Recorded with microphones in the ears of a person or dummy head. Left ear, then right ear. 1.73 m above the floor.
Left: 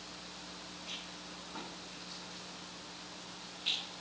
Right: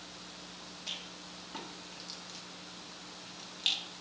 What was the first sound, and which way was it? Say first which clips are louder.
A rattle: right 4 dB; 65° right (ahead or behind).